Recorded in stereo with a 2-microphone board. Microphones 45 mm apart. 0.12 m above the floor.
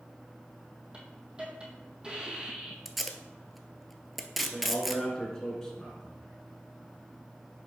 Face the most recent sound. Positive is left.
turn(degrees=10)  # may be behind; listen again after turning